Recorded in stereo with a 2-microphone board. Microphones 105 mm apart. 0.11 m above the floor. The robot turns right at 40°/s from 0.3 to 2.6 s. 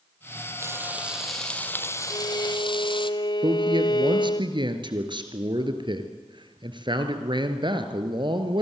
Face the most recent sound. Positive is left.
turn(degrees=-45)  # may be behind; listen again after turning